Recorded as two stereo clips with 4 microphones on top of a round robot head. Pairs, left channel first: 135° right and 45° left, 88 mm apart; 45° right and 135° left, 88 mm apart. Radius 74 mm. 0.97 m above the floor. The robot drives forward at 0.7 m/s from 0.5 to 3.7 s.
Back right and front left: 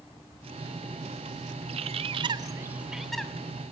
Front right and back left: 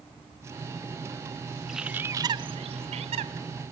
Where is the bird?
45° left, 0.7 m; by 3.3 s 145° left, 0.8 m.